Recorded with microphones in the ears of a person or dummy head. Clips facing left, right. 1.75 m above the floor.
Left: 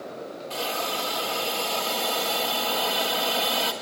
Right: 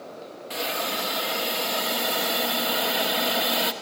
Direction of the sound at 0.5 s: 25° right (ahead or behind).